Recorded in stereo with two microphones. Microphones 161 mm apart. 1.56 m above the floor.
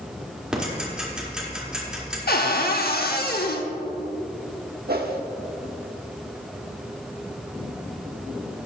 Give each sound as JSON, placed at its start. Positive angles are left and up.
{"t": 0.5, "sound": "ticking", "side_deg": -5, "distance_m": 2.0}
{"t": 2.3, "sound": "a cupboard door", "side_deg": 75, "distance_m": 0.8}
{"t": 4.9, "sound": "a whoosh", "side_deg": -75, "distance_m": 0.9}